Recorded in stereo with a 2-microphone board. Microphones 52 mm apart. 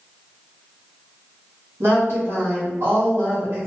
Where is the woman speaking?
70° right (ahead or behind), 1.8 m.